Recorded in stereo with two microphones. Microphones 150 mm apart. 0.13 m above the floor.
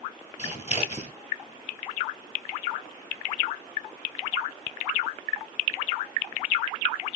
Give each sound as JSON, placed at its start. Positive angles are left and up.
{"t": 0.4, "sound": "scissors", "side_deg": 50, "distance_m": 1.7}